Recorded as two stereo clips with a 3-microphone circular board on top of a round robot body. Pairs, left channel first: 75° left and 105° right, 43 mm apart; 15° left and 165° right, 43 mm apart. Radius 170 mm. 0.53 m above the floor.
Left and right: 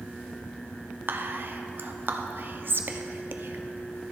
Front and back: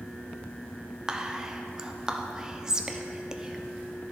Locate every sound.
1.1 s whispering: 90° right, 1.0 m